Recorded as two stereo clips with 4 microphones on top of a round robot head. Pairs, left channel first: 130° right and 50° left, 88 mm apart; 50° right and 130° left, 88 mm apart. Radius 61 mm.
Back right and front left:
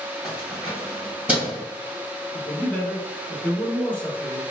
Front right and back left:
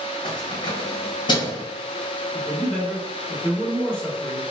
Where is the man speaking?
105° right, 1.4 m.